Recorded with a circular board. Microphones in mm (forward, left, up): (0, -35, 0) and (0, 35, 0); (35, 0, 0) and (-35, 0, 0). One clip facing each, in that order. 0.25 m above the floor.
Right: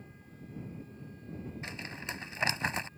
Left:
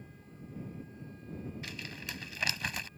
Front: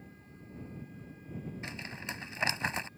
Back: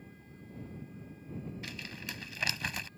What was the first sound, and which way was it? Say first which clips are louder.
Crumpling: right 2 dB, front 2 dB; 45° right.